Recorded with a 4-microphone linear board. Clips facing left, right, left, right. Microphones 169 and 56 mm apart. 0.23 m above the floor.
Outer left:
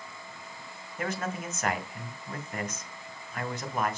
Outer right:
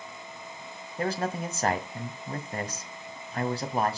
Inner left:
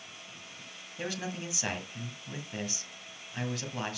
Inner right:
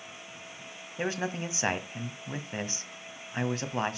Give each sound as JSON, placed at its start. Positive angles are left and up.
{"t": 1.0, "sound": "a man speaking", "side_deg": -35, "distance_m": 1.6}